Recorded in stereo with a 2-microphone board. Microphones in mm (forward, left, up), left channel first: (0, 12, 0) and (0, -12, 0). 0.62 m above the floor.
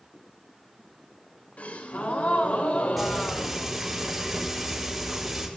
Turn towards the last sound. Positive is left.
turn(degrees=-5)  # may be behind; listen again after turning